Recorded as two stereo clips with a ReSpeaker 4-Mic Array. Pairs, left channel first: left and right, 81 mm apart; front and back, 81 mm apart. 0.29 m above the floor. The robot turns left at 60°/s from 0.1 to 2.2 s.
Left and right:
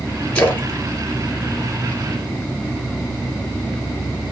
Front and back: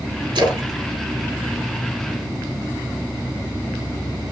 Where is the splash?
165° left, 1.1 m; by 2.2 s 55° left, 1.1 m.